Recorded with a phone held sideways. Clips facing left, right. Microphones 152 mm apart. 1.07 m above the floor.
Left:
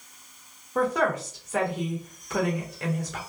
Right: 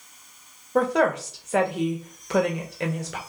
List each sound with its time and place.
0.8 s a woman speaking: 70° right (ahead or behind), 1.2 m